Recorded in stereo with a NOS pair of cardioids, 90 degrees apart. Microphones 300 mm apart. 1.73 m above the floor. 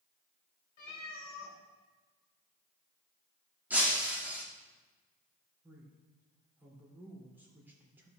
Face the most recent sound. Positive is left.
turn(degrees=-5)